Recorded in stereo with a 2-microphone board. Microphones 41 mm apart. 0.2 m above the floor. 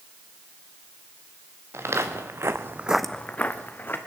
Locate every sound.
1.7 s footsteps: 80° right, 1.8 m; by 4.0 s 50° left (ahead or behind), 1.8 m